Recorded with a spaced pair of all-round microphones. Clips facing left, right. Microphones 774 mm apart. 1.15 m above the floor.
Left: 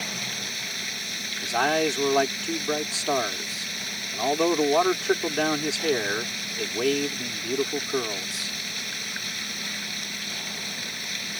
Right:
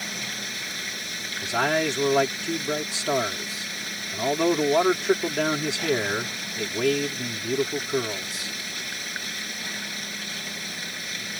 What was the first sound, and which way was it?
Running water, 75° right (ahead or behind).